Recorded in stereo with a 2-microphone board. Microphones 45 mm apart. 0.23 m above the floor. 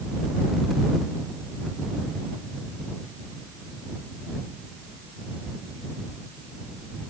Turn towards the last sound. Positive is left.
No sound to turn to.